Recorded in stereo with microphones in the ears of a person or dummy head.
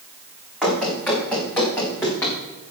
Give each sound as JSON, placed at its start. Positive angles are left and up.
{"t": 0.6, "sound": "running footsteps", "side_deg": 5, "distance_m": 7.0}